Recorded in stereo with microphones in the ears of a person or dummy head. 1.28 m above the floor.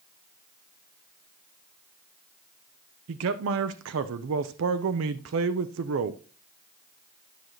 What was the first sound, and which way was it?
A man speaking, 70° right (ahead or behind).